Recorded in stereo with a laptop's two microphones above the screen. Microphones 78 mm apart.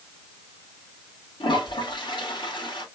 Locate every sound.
1.4 s a toilet flushing: 85° left, 2.5 m